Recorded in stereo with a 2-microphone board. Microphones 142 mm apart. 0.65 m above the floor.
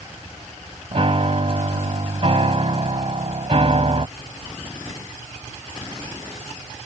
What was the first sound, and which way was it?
A piano, 50° right (ahead or behind).